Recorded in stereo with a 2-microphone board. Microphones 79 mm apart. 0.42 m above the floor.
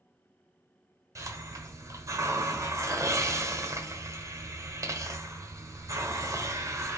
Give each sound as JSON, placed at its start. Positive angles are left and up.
{"t": 1.1, "sound": "a hiss", "side_deg": -45, "distance_m": 1.3}